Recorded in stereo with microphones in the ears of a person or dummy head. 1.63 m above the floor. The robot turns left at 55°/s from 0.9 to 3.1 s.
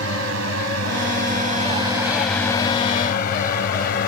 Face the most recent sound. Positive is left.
turn(degrees=50)  # may be behind; listen again after turning